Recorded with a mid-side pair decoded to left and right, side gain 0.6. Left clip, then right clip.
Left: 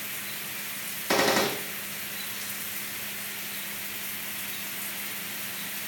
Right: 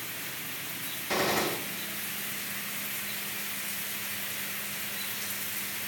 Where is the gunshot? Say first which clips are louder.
Left 4 dB; 50° left, 4.5 m.